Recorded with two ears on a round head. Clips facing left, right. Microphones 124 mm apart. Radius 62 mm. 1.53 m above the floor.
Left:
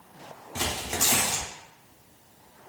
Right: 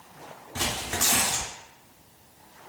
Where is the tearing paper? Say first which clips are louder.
Even; 10° left (ahead or behind), 0.6 m.